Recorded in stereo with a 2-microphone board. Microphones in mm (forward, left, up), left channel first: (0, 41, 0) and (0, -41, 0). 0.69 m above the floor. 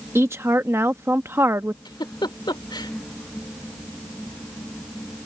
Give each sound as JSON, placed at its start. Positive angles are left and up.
{"t": 0.1, "sound": "a woman speaking", "side_deg": -30}
{"t": 1.9, "sound": "a giggle", "side_deg": 70}